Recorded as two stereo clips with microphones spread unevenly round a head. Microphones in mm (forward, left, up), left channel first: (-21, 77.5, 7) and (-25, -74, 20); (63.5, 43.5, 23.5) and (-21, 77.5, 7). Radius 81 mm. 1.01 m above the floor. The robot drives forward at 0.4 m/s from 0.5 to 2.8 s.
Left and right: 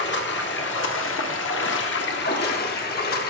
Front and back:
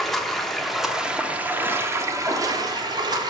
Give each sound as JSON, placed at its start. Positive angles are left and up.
{"t": 0.0, "sound": "running water", "azimuth_deg": 60, "distance_m": 1.1}